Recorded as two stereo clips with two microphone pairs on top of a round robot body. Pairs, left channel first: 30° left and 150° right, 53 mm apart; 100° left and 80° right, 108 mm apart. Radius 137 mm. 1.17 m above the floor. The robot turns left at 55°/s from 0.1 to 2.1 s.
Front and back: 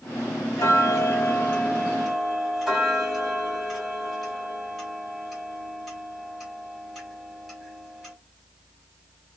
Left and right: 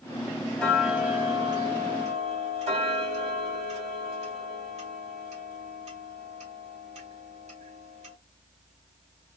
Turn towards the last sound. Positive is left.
turn(degrees=-60)